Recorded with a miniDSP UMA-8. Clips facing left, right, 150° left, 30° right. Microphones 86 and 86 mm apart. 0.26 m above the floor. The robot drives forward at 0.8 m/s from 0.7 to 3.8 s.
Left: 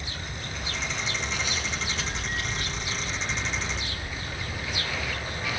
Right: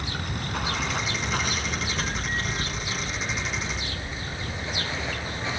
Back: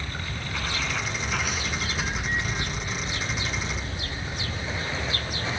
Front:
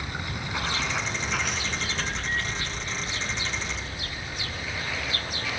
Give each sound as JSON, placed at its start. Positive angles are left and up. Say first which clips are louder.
{"t": 0.0, "sound": "running water", "louder": "right 5 dB, front 1 dB", "azimuth_deg": -105, "distance_m": 1.7}